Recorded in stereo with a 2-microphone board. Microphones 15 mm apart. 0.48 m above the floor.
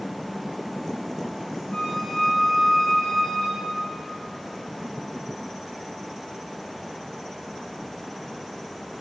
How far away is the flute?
About 3.5 m.